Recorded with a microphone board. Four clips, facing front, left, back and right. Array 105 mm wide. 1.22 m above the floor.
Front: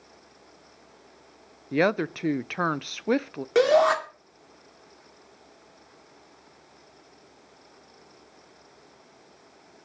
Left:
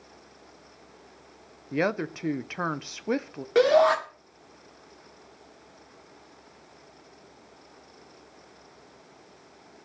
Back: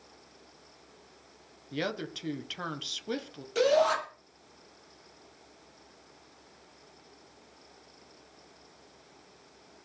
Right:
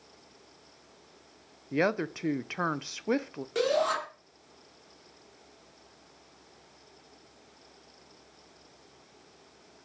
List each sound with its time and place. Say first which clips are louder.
1.7 s a woman speaking: left 1 dB, front 11 dB; 5° left, 0.6 m
3.5 s a shout: left 8 dB, front 5 dB; 30° left, 3 m